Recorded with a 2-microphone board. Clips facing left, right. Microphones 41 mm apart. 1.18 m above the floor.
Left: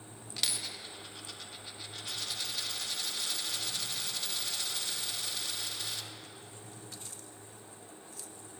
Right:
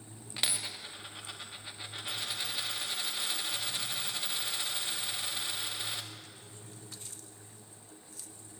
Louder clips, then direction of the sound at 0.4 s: Right 2 dB; 25° right (ahead or behind).